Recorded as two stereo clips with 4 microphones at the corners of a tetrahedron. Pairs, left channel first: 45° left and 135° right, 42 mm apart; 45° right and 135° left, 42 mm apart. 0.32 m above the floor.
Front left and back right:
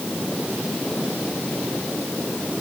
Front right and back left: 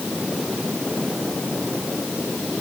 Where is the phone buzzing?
I don't hear a phone buzzing.